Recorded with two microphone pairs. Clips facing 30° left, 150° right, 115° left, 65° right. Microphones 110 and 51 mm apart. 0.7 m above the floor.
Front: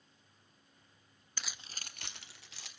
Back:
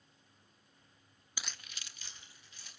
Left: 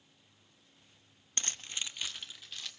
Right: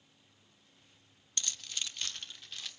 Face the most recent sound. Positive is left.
turn(degrees=20)